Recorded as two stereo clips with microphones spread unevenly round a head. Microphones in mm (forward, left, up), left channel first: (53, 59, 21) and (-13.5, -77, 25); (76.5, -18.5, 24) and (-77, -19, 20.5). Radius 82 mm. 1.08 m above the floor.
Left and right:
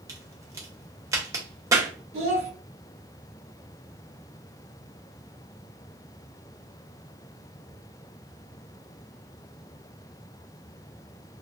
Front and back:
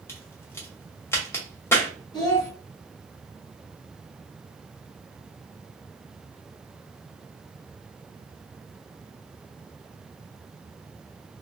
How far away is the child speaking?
About 1.2 m.